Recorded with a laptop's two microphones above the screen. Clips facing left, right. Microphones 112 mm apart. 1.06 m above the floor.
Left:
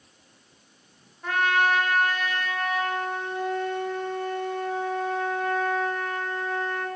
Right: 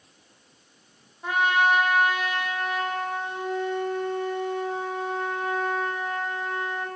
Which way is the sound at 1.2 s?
15° right (ahead or behind).